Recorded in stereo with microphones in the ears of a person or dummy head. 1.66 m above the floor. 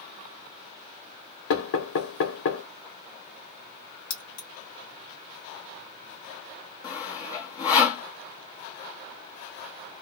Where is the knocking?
75° left (ahead or behind), 1.1 m.